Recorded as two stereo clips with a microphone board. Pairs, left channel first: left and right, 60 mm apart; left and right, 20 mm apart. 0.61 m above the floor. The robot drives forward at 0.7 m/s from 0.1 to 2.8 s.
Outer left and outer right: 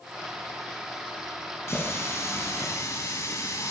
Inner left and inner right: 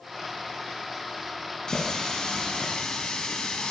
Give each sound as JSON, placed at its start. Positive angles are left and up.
{"t": 1.7, "sound": "a running tap", "side_deg": 45, "distance_m": 3.5}